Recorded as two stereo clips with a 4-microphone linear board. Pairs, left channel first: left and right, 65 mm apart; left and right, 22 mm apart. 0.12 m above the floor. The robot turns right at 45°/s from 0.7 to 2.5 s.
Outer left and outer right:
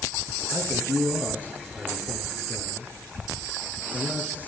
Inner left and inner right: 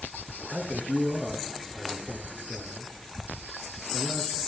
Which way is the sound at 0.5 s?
25° right (ahead or behind).